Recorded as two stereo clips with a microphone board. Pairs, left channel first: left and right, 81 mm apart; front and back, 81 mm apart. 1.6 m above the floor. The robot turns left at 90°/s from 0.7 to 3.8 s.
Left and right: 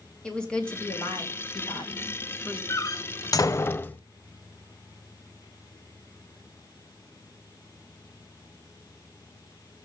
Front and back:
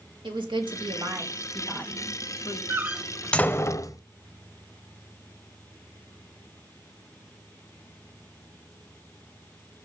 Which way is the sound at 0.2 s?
170° left.